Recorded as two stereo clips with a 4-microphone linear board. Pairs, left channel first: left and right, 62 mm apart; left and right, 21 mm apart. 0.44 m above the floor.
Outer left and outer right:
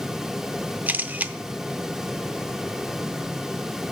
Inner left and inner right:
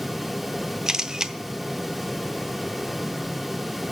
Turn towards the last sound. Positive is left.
turn(degrees=-25)  # may be behind; listen again after turning